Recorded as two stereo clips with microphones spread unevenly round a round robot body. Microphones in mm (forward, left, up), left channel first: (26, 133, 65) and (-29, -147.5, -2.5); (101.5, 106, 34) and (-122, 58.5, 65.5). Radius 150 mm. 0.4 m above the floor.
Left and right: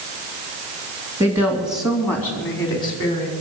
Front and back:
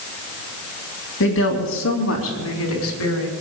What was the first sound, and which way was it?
A woman speaking, 25° right.